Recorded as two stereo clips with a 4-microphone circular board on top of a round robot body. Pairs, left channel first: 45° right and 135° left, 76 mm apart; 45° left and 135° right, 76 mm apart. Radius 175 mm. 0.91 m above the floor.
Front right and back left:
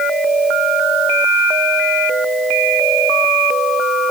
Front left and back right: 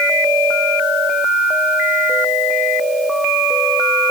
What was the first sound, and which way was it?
Only background noise.